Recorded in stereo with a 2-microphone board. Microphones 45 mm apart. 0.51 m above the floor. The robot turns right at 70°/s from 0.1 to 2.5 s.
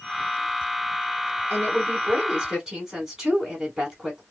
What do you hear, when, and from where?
1.5 s a woman speaking: 90° right, 2 m; by 4.2 s 20° right, 2 m